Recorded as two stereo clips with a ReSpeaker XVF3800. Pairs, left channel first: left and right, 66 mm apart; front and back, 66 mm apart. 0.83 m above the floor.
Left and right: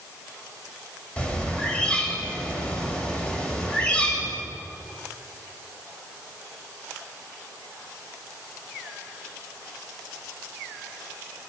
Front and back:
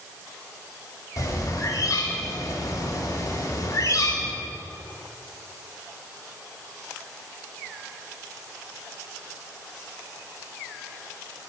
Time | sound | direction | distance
1.2 | a bird | 20° left | 1.6 m